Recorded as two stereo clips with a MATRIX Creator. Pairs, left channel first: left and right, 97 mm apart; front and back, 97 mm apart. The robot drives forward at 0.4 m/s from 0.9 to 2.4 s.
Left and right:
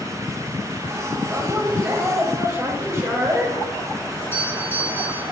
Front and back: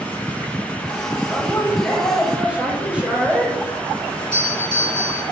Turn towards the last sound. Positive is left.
turn(degrees=60)